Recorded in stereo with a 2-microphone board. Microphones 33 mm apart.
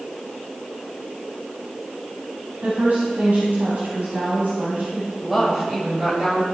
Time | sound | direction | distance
2.6 | a woman speaking | 65° right (ahead or behind) | 3.5 m
5.2 | a woman speaking | 20° right (ahead or behind) | 2.5 m